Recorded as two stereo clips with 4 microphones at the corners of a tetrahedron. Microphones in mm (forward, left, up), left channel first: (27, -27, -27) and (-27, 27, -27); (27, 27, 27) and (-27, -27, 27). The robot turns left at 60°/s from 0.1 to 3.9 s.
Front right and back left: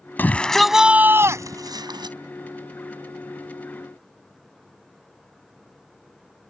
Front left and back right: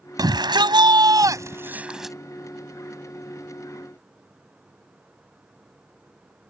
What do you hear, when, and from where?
0.2 s a shout: 105° right; by 2.1 s 135° left